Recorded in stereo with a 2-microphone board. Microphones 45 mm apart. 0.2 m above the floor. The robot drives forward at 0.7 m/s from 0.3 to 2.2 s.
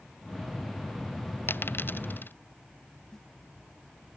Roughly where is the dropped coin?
Left.